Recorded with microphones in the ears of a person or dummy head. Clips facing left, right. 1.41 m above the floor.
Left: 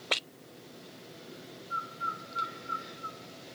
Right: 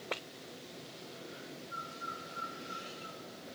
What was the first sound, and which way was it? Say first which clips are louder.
A bird: left 4 dB; 75° left (ahead or behind).